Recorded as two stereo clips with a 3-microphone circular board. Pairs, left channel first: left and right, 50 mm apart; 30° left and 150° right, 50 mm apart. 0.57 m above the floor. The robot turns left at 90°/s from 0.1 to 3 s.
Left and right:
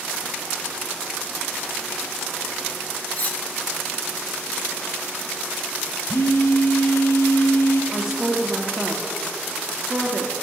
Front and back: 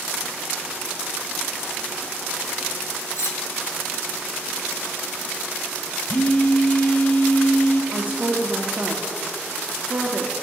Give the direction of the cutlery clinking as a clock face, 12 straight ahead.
11 o'clock.